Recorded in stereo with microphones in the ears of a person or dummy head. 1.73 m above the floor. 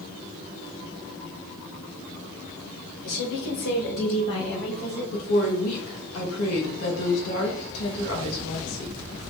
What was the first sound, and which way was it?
A woman speaking, 60° left (ahead or behind).